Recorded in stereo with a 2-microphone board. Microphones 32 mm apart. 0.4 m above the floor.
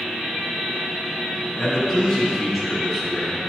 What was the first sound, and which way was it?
A man speaking, centre (ahead or behind).